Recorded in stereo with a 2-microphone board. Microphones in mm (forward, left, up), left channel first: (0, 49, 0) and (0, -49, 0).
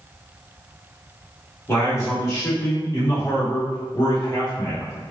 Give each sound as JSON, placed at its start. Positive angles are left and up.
{"t": 1.7, "sound": "a man speaking", "side_deg": 30, "distance_m": 1.6}